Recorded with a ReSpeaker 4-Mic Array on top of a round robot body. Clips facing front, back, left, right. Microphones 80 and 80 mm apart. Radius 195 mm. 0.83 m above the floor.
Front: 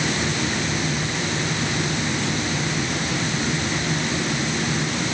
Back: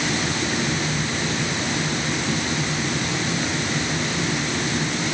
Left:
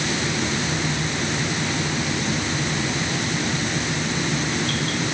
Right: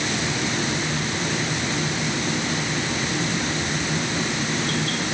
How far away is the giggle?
No giggle in this recording.